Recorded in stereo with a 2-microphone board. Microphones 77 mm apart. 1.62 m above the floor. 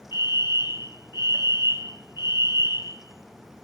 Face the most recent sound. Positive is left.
turn(degrees=65)  # may be behind; listen again after turning